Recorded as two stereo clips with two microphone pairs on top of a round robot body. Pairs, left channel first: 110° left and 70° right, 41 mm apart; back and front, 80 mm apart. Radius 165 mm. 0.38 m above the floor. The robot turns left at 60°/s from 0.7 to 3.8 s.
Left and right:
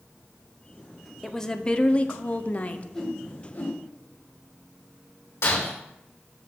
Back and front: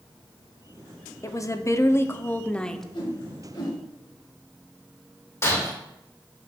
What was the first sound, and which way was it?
A woman speaking, 170° right.